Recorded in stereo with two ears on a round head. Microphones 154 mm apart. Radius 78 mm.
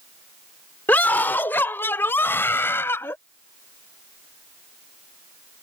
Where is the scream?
10° left (ahead or behind); by 3.1 s 15° left (ahead or behind).